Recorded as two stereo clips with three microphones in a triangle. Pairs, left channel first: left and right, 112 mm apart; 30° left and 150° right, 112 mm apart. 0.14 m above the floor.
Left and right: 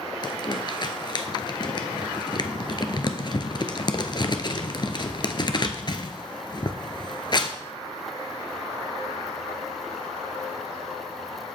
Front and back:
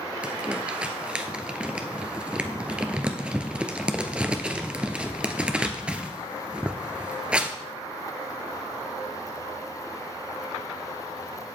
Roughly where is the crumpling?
Behind left.